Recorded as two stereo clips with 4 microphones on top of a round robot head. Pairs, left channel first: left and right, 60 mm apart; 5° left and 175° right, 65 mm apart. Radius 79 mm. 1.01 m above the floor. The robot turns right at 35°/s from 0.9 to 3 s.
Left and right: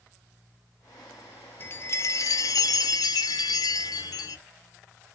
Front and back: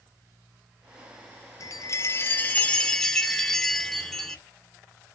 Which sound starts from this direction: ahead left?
A chime, at 1.6 s.